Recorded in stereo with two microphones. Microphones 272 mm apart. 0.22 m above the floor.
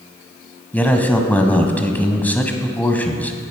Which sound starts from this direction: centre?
A man speaking, at 0.7 s.